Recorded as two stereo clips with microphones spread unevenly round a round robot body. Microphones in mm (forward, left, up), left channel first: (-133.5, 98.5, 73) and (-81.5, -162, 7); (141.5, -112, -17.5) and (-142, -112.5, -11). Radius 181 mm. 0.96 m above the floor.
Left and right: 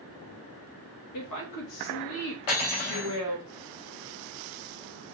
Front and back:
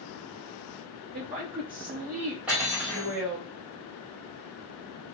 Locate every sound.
1.1 s a woman speaking: 105° left, 1.3 m
2.5 s cutlery clinking: 95° left, 1.3 m